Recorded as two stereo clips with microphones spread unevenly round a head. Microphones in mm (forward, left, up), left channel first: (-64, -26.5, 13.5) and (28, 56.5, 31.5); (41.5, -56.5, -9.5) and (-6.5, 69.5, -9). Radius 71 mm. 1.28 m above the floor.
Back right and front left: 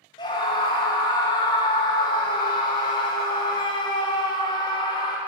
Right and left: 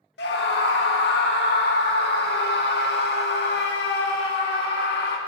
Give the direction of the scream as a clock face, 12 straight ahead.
3 o'clock.